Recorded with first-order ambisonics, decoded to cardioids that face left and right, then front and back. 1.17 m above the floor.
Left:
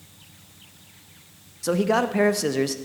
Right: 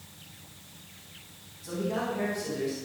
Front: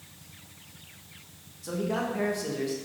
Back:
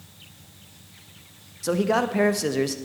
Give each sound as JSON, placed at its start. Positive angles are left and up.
{"t": 1.6, "sound": "a man speaking", "azimuth_deg": 125, "distance_m": 1.0}